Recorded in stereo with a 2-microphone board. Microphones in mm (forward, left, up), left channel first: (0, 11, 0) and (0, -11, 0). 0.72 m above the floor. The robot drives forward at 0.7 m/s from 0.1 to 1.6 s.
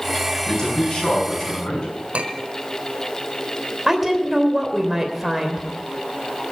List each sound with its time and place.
0.5 s a man speaking: 35° left (ahead or behind), 7 m
2.1 s a clink: 70° right (ahead or behind), 1.4 m
3.9 s a woman speaking: 10° right (ahead or behind), 3 m